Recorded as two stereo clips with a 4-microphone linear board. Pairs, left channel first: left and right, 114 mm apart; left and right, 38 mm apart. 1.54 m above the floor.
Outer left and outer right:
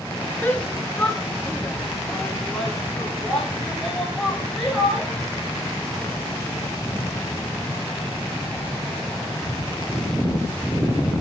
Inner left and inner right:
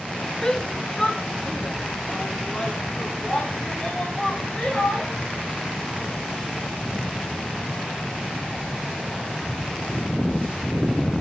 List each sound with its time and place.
0.4 s a shout: 20° left (ahead or behind), 1.3 m; by 5.1 s 10° left (ahead or behind), 7 m